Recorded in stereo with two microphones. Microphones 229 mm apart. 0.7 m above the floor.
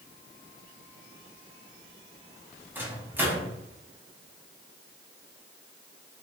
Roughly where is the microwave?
Centre.